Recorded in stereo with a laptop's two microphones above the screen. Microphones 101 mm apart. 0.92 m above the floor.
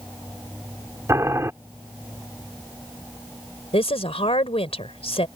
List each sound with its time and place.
1.1 s boiling: 30° right (ahead or behind)
3.7 s a woman speaking: 80° left